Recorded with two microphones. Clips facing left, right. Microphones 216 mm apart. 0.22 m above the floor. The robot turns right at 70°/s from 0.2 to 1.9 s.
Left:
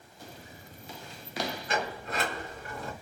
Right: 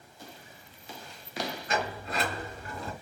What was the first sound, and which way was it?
A sliding door, 45° right (ahead or behind).